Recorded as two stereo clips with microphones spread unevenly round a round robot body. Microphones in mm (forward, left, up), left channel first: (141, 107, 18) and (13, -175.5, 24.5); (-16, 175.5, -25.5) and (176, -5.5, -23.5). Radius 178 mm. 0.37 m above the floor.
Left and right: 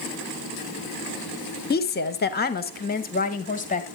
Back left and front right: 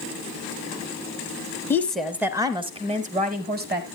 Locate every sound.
1.7 s a woman speaking: 65° left, 0.9 m; by 3.9 s 5° left, 1.5 m